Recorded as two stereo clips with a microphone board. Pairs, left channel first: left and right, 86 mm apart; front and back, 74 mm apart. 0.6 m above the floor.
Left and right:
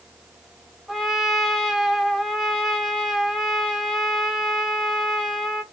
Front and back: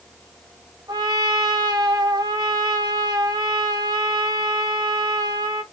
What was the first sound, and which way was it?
A trumpet, straight behind.